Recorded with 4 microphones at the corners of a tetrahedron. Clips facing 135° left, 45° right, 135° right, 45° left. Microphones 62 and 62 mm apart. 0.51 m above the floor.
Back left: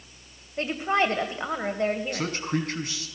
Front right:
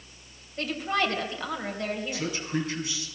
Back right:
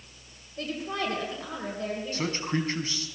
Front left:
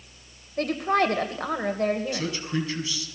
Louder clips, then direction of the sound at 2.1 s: Back left 2 dB, even; 175° left.